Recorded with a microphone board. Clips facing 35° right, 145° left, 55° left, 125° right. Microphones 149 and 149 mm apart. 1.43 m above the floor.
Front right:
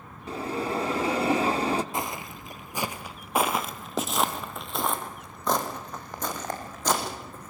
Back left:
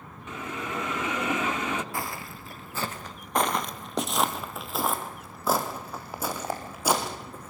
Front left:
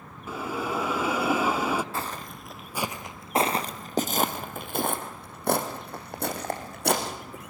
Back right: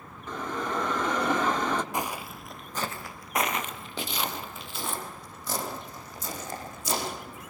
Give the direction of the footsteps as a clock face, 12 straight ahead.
2 o'clock.